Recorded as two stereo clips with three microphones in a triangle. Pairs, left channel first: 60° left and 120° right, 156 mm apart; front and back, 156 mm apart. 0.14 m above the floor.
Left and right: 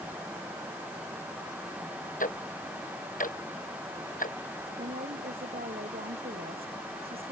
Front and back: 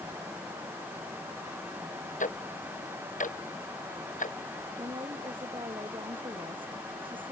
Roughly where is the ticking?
Ahead left.